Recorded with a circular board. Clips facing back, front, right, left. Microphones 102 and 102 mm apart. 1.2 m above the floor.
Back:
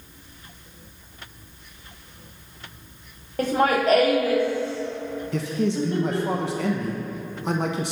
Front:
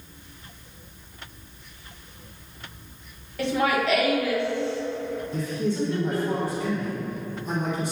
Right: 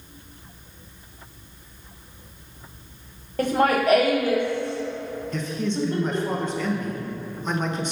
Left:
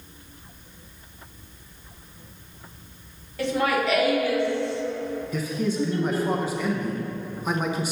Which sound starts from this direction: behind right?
Laughter, at 3.4 s.